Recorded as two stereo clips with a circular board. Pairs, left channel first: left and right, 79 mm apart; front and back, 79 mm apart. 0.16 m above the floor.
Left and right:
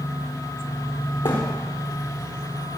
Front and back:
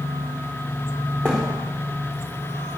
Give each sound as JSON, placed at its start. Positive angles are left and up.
{"t": 1.2, "sound": "a thud", "azimuth_deg": 80, "distance_m": 4.5}